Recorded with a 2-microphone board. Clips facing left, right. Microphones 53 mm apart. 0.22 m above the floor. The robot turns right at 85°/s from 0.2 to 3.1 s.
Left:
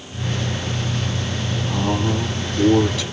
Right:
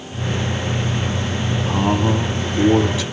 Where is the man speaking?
135° right, 1.2 m; by 3.0 s 15° right, 1.2 m.